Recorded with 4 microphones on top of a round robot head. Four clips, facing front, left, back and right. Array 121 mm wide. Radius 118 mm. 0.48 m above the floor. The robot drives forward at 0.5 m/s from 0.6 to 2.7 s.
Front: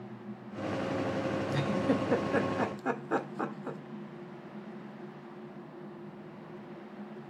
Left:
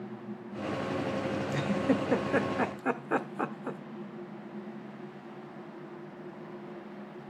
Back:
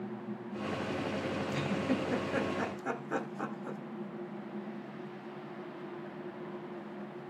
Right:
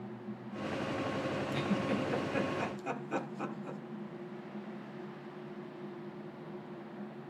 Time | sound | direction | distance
1.5 | a giggle | 45° left | 1.9 m